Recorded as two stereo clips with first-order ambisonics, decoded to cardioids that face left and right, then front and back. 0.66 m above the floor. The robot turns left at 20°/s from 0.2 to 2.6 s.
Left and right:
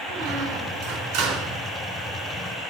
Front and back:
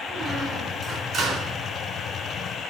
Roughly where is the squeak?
Right.